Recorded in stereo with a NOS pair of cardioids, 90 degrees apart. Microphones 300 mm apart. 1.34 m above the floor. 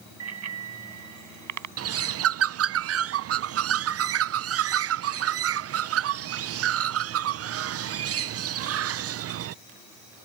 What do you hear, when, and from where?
0.2 s a bicycle bell: 55° right; by 1.7 s 65° right
1.8 s a bird: 50° right